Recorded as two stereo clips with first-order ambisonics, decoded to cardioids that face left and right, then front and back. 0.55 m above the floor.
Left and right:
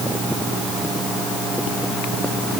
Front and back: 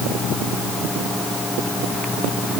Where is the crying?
I don't hear crying.